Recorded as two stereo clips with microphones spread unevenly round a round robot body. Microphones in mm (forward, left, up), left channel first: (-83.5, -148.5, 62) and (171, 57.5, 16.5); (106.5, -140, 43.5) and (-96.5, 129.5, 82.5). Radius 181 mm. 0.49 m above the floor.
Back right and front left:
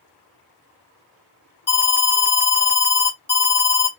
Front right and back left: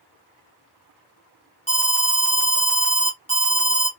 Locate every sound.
1.7 s an alarm: 95° right, 1.9 m